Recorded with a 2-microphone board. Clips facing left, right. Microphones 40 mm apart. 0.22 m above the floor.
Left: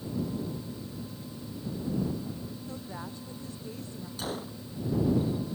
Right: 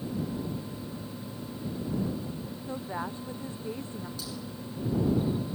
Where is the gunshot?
45° left (ahead or behind).